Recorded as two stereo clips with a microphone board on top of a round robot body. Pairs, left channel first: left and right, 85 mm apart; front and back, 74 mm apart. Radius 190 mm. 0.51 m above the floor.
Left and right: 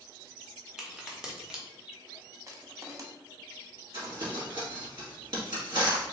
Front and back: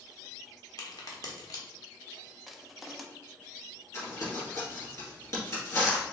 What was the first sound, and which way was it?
A crack, 10° right.